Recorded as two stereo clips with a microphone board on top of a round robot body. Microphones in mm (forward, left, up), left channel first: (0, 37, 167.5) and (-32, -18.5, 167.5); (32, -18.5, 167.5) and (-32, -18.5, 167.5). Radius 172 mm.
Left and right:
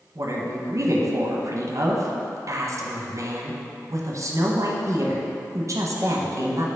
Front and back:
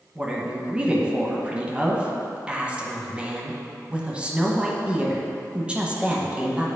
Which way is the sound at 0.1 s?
110° right.